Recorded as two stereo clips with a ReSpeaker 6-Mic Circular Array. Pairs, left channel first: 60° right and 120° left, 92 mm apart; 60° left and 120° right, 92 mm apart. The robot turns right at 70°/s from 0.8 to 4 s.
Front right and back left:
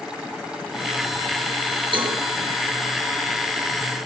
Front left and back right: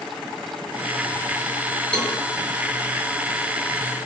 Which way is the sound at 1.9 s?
140° left.